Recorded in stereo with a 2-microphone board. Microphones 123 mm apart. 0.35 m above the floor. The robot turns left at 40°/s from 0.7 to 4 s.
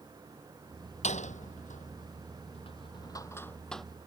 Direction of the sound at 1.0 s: 65° left (ahead or behind).